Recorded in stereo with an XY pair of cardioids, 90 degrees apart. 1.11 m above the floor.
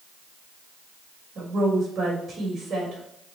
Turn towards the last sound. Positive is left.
turn(degrees=-65)